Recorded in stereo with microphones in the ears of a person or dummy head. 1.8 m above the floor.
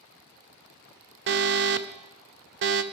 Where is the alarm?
50° right (ahead or behind), 0.6 m.